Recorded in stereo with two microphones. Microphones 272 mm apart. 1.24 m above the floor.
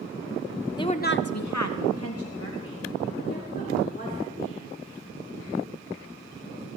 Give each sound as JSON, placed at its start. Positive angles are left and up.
{"t": 0.8, "sound": "a woman speaking", "side_deg": 15, "distance_m": 1.0}